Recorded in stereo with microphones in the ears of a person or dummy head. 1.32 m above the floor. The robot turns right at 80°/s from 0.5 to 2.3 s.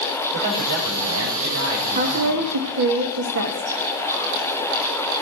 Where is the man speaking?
160° right, 6 m; by 2.6 s 15° right, 6 m.